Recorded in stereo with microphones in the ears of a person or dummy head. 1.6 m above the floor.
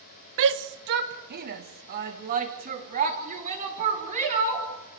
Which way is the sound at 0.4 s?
70° right (ahead or behind).